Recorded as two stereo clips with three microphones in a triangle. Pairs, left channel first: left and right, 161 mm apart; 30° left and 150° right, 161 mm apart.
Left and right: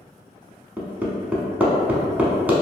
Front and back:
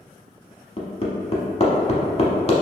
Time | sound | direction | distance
0.8 | hammering | 10° right | 0.7 m